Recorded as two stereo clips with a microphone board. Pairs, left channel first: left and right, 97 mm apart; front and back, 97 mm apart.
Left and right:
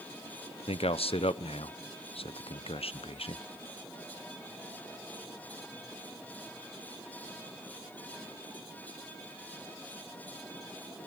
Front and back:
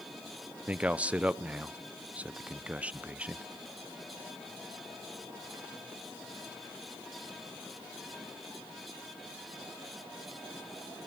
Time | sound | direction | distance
0.7 | a man speaking | 105° left | 0.9 m